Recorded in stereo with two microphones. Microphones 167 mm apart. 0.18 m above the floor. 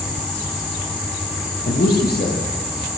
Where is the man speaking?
75° left (ahead or behind), 6.5 m.